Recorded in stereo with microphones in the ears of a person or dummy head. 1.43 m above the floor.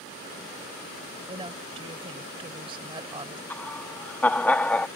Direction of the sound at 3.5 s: 10° left (ahead or behind).